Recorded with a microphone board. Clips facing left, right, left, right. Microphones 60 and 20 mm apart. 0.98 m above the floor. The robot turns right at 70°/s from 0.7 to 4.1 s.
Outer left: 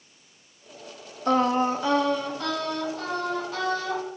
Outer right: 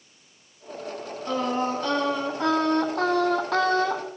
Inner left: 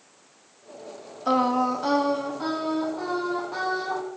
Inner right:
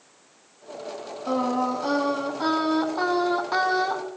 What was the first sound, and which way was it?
Singing, 125° left.